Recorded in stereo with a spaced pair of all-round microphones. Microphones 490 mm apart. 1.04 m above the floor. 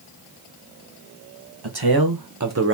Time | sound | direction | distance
1.6 | a man speaking | 55° right (ahead or behind) | 1.1 m